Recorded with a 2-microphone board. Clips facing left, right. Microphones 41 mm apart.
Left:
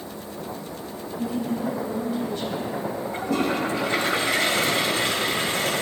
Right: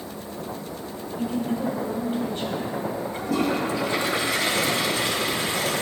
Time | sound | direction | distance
1.2 | a woman speaking | 35° right (ahead or behind) | 5.5 m
3.1 | a toilet flushing | 45° left (ahead or behind) | 2.5 m